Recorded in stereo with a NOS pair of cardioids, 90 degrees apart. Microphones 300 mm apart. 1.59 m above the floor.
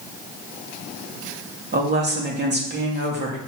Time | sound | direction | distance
1.7 | a woman speaking | 35° right | 2.5 m